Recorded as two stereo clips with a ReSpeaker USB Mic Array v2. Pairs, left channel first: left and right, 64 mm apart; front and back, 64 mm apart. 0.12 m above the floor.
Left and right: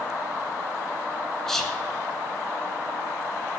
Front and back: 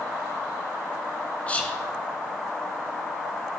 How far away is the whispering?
About 1.1 m.